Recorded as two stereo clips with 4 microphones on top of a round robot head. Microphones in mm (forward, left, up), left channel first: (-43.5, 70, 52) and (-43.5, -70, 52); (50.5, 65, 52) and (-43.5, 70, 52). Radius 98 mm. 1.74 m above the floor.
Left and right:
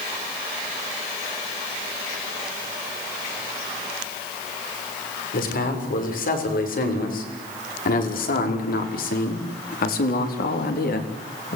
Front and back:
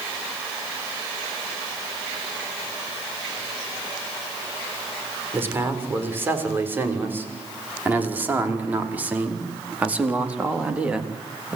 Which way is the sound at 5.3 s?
110° left.